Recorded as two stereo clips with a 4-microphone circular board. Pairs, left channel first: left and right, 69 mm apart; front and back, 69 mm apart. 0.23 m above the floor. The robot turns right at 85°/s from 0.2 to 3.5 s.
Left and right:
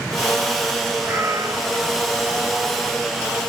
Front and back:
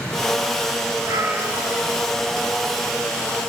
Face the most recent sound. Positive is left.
turn(degrees=65)